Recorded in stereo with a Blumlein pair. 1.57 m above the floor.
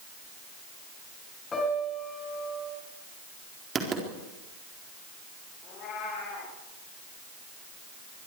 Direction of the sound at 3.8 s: 20° right.